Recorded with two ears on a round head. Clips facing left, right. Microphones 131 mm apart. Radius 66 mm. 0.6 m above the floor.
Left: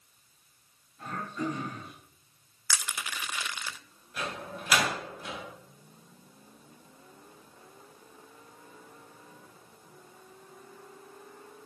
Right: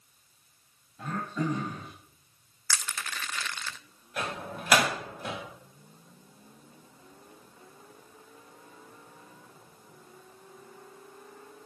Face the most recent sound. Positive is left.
turn(degrees=-45)  # may be behind; listen again after turning